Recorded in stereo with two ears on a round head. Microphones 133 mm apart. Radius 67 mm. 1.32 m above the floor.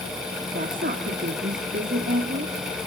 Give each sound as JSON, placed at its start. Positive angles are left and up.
{"t": 0.5, "sound": "a woman speaking", "side_deg": -65, "distance_m": 2.5}